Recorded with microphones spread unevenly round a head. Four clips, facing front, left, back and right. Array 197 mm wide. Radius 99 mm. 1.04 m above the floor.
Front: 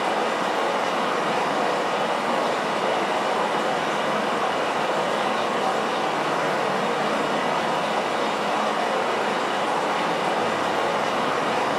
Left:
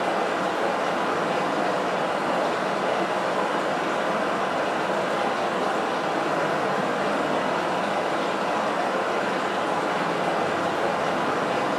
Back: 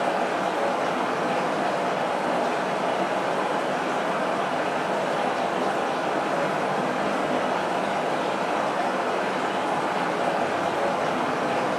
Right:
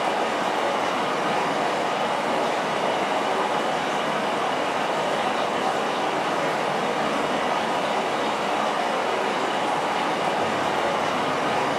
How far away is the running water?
About 1.8 m.